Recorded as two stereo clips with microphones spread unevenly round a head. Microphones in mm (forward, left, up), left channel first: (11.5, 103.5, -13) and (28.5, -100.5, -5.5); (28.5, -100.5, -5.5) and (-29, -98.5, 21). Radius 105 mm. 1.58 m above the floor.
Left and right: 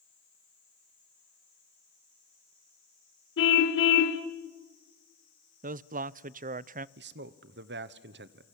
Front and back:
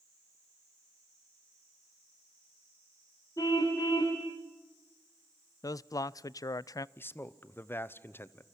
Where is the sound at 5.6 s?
35° right, 0.5 m.